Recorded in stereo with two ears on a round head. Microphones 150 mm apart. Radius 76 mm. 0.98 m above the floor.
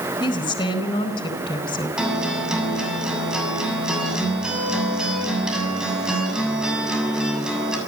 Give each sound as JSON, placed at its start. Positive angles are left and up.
{"t": 0.2, "sound": "a woman speaking", "side_deg": 30, "distance_m": 4.0}
{"t": 2.0, "sound": "a guitar", "side_deg": -5, "distance_m": 7.0}